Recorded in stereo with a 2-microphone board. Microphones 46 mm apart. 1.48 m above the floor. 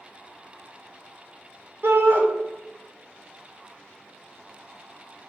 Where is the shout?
55° right (ahead or behind), 0.7 m.